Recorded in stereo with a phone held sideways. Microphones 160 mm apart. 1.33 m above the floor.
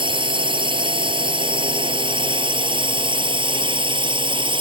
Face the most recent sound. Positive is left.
turn(degrees=-30)  # may be behind; listen again after turning